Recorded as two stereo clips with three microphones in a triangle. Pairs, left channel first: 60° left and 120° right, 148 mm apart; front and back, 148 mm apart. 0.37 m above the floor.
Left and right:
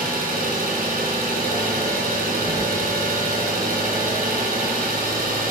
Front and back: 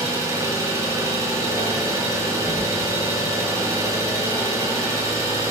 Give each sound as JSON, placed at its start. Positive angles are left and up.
{"t": 0.0, "sound": "an engine running", "azimuth_deg": -110, "distance_m": 2.5}